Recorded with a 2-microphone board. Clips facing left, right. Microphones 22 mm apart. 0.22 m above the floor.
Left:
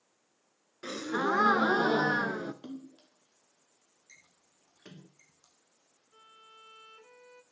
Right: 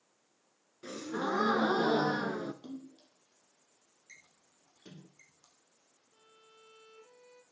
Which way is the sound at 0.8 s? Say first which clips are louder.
Left 5 dB; 60° left (ahead or behind).